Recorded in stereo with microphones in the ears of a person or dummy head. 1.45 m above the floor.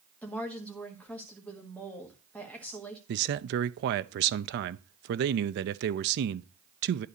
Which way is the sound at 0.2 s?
10° left (ahead or behind).